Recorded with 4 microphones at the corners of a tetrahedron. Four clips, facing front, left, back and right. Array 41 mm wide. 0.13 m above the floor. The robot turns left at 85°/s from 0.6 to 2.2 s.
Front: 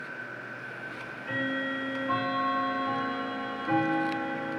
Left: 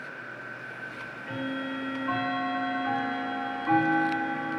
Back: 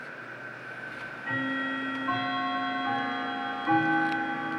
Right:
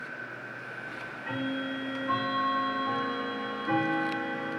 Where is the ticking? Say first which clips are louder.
Right 1 dB, back 4 dB; 95° right, 5.5 m; by 4.6 s 150° left, 5.5 m.